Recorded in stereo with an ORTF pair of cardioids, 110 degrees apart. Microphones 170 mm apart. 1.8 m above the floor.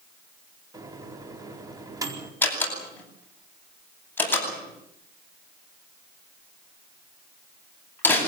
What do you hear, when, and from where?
0.7 s a microwave: 20° right, 4.5 m
2.4 s a door slam: 10° left, 9.5 m